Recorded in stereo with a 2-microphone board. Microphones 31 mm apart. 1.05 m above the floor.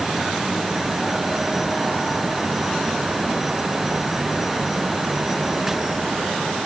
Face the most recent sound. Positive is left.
No sound to turn to.